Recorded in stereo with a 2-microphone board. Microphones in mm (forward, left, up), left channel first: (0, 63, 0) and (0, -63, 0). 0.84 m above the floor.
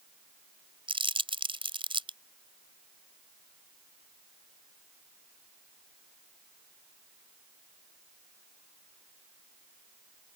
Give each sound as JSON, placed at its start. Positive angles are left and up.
{"t": 0.9, "sound": "crumpling", "side_deg": -45}